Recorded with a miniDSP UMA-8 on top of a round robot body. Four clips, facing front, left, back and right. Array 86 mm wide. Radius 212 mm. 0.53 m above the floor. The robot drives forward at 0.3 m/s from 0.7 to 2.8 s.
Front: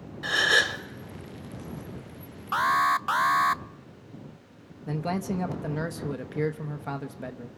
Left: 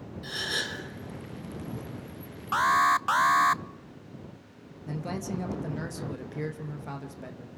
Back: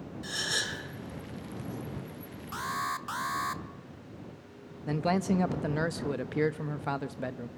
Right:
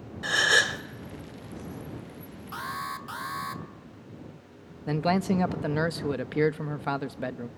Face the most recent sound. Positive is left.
turn(degrees=-105)